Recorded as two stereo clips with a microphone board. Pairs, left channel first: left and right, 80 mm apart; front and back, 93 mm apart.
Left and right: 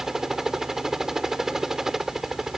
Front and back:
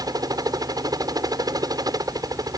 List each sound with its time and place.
0.0 s a helicopter: 175° right